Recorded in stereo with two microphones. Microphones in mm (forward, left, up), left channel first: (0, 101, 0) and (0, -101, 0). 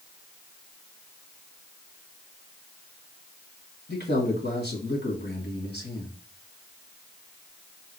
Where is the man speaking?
55° left (ahead or behind), 2.5 m.